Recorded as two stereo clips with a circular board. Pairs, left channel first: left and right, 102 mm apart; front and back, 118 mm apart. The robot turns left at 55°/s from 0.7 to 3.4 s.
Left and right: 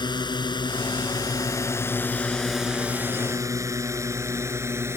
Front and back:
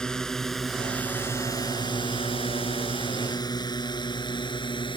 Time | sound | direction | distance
0.0 | a drone | 80° left | ?